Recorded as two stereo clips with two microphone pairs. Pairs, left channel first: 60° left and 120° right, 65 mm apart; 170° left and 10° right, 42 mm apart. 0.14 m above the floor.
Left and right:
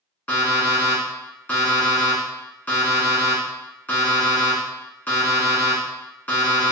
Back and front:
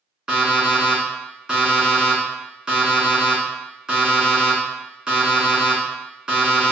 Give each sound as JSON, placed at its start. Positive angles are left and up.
{"t": 0.3, "sound": "an alarm clock", "azimuth_deg": 40, "distance_m": 1.0}